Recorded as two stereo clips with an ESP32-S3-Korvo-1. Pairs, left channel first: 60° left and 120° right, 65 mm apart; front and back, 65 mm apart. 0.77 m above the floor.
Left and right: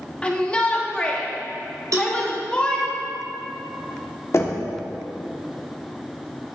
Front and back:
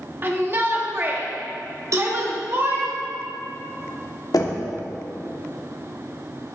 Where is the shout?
130° left, 1.2 m.